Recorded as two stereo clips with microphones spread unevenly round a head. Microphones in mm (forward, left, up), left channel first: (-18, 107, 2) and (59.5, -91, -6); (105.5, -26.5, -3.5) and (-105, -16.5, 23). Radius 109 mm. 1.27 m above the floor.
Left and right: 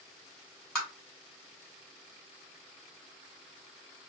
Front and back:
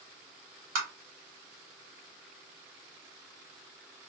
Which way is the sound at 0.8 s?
165° right.